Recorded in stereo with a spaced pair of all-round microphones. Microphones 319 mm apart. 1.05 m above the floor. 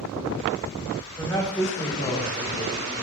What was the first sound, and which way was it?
A man speaking, 10° left (ahead or behind).